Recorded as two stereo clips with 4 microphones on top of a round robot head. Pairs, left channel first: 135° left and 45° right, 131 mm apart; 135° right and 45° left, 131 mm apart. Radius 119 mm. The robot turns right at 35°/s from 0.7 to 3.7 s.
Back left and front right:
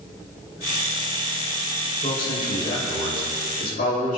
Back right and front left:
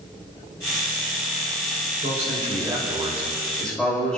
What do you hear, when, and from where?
2.0 s a man speaking: 80° left, 6.5 m; by 4.2 s 140° left, 6.5 m